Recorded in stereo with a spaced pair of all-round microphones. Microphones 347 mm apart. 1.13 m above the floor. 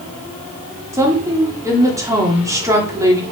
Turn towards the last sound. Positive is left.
turn(degrees=-10)  # may be behind; listen again after turning